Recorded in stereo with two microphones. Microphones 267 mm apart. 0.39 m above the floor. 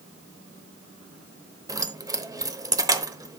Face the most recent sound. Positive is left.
turn(degrees=-15)  # may be behind; listen again after turning